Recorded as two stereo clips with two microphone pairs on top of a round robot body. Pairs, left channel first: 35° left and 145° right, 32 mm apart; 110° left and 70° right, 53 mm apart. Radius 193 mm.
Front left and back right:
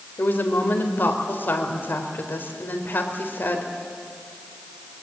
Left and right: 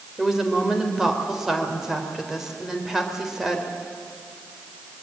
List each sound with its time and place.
0.2 s a woman speaking: 15° left, 4 m